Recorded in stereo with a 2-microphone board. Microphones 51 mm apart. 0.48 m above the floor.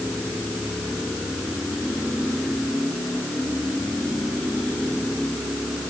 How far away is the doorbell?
I don't hear a doorbell.